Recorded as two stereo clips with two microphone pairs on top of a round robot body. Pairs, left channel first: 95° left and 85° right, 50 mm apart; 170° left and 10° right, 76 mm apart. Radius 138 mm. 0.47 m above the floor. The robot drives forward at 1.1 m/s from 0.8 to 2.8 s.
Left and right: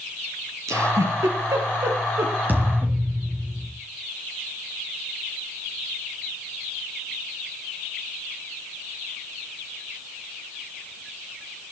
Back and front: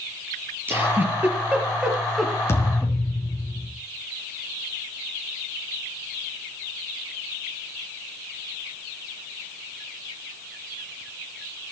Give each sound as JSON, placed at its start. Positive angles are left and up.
{"t": 0.7, "sound": "a giggle", "azimuth_deg": -75, "distance_m": 4.0}
{"t": 2.5, "sound": "a thud", "azimuth_deg": -135, "distance_m": 4.0}